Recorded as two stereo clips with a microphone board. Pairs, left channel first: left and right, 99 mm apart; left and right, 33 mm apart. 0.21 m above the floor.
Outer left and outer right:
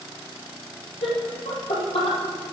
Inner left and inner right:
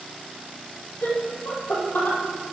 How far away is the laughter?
About 5.5 m.